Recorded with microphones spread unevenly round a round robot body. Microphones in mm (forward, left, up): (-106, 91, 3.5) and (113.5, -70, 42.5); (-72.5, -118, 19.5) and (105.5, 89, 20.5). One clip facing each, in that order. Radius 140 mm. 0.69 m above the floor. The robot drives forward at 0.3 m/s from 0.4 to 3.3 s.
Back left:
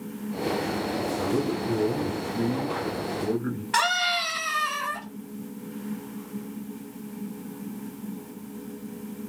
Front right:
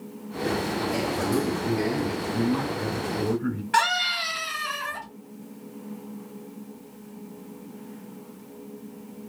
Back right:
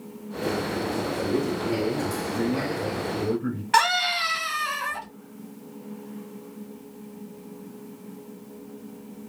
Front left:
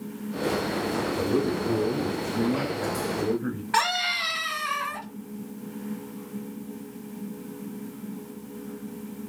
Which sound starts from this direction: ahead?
A man speaking, at 1.2 s.